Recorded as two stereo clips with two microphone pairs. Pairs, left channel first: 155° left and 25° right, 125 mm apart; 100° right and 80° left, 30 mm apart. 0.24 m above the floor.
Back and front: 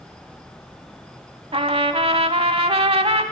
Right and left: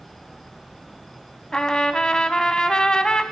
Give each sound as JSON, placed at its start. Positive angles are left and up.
{"t": 1.5, "sound": "a trumpet", "azimuth_deg": -50, "distance_m": 0.6}